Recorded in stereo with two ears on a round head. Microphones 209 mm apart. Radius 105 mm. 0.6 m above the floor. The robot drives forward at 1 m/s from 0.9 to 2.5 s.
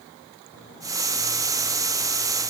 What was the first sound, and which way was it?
Only background noise.